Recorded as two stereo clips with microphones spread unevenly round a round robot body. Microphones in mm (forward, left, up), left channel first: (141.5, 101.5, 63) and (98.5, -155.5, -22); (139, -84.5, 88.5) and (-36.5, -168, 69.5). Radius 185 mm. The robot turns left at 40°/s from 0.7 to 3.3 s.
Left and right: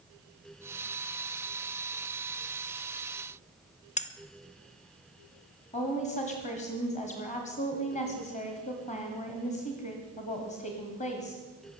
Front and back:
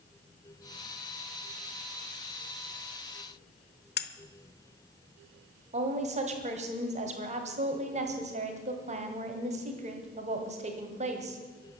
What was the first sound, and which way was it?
Cutlery clinking, 5° left.